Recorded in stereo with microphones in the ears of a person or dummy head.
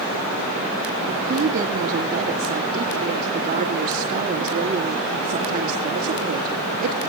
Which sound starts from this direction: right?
A woman speaking, at 1.1 s.